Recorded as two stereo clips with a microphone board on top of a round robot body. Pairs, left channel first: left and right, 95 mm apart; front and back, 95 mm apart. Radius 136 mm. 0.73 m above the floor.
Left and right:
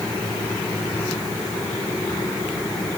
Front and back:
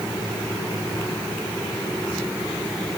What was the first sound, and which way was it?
Only background noise.